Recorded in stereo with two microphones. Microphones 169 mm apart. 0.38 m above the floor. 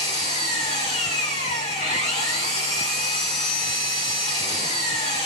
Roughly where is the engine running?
Left.